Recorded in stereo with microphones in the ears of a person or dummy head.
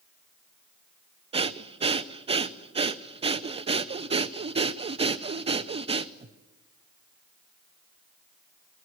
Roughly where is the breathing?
Right.